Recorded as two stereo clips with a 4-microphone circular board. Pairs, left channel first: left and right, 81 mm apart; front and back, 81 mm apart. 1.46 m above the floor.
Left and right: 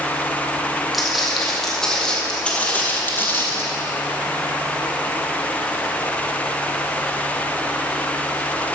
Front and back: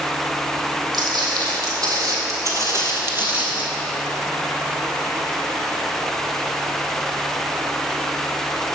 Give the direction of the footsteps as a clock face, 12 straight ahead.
6 o'clock.